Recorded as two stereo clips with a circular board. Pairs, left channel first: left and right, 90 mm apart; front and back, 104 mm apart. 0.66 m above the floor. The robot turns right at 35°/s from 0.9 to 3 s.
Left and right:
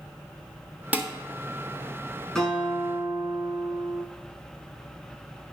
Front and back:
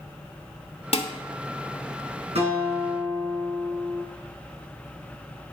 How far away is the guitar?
About 2.5 m.